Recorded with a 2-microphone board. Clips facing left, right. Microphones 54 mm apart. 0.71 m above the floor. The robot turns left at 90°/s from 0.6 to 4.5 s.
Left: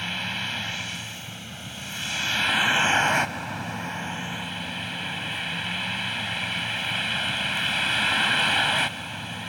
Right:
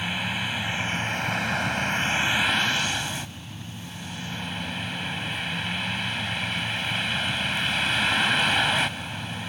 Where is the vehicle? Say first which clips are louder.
Right 2 dB; 10° right; by 9.5 s straight ahead.